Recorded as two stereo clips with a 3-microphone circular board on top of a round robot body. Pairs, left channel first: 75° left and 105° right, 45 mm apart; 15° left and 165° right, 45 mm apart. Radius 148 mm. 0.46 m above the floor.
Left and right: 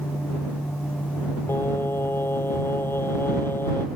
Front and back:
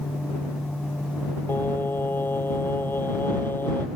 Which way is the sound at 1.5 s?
50° left.